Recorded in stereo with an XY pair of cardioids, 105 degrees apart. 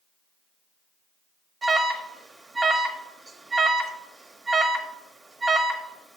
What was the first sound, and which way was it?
An alarm, 30° right.